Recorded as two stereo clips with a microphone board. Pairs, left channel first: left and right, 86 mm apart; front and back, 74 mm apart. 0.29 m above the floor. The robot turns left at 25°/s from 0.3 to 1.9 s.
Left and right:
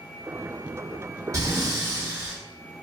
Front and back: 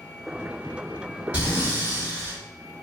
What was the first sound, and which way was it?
Breathing, 115° right.